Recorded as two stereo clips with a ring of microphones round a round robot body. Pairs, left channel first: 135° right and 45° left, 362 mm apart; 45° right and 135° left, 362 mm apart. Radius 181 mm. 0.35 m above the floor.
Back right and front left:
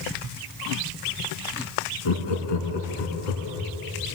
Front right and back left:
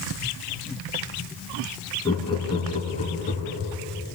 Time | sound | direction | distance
2.0 | laughter | 125° right | 4.5 m